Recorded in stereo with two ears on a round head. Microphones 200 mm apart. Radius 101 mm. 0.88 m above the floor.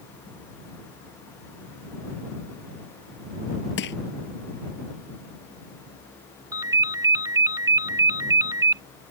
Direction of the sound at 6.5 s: 15° right (ahead or behind).